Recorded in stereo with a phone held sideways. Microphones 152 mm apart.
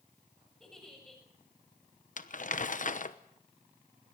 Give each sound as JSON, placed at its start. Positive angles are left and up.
{"t": 0.6, "sound": "a giggle", "side_deg": 5, "distance_m": 7.0}
{"t": 2.2, "sound": "crumpling", "side_deg": 60, "distance_m": 1.0}